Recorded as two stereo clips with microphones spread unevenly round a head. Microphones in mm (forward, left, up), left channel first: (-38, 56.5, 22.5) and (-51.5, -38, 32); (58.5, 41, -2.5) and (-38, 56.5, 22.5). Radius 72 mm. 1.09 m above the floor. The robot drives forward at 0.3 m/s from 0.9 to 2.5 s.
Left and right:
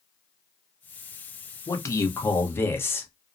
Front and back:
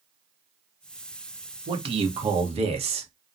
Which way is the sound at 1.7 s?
135° left.